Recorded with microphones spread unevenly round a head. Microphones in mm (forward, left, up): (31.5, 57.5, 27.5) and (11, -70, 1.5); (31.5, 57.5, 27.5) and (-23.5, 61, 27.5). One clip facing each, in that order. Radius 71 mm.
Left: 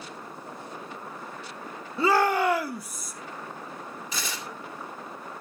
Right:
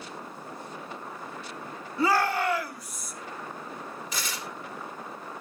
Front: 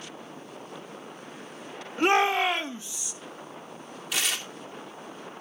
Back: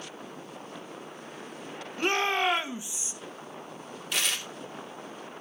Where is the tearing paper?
85° left, 2.5 m.